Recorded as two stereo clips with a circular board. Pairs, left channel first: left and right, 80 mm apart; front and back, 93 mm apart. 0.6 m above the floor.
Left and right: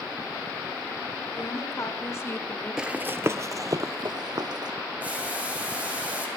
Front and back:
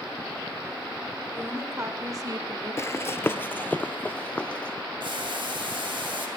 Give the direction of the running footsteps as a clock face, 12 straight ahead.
12 o'clock.